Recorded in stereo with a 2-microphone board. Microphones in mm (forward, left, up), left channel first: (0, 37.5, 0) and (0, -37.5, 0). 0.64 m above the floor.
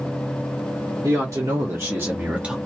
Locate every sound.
1.0 s a man speaking: 50° right (ahead or behind), 2 m; by 2.6 s 10° right (ahead or behind), 1.1 m